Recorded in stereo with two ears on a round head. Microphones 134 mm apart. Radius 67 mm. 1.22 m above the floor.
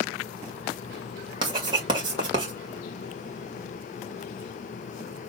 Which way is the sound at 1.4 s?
30° right (ahead or behind).